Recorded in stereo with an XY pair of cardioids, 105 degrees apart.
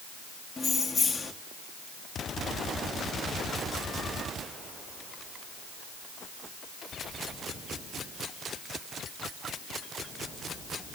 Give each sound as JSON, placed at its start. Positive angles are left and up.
{"t": 0.6, "sound": "keys jangling", "azimuth_deg": 25, "distance_m": 1.5}